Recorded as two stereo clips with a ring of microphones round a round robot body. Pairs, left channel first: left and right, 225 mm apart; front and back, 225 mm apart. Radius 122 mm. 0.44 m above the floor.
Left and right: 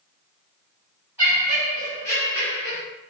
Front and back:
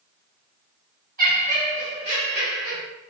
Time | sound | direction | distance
1.2 | laughter | 160° right | 1.5 m